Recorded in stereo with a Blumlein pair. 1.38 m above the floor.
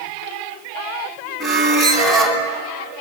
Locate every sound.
1.4 s a squeak: straight ahead, 2.5 m